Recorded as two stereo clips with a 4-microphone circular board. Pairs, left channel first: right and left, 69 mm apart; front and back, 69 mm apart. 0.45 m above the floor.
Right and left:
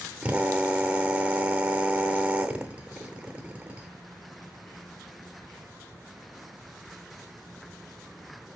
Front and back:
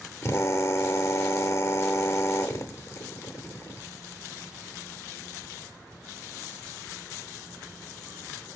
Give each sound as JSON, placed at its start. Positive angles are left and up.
{"t": 0.2, "sound": "a drill", "azimuth_deg": 25, "distance_m": 0.8}